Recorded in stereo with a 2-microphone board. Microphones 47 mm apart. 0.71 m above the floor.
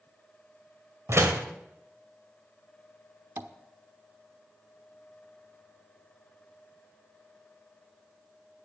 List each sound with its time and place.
1.1 s a door slam: 70° right (ahead or behind), 2 m
3.4 s tapping: 65° right (ahead or behind), 1.0 m